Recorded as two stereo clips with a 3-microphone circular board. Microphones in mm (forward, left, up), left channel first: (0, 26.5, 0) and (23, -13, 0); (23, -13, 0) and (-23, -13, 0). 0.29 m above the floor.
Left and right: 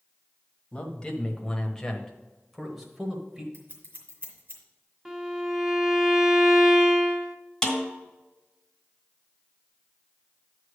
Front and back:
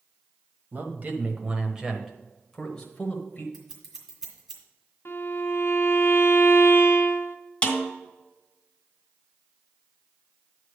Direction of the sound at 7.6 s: 50° left.